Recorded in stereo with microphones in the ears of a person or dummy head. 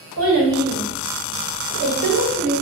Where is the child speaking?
85° right, 1.6 m; by 2.6 s 35° right (ahead or behind), 0.9 m.